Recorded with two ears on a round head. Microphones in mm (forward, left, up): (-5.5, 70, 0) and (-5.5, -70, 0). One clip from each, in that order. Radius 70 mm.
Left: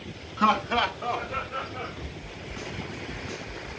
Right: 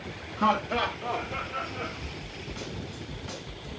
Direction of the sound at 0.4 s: 35° left (ahead or behind).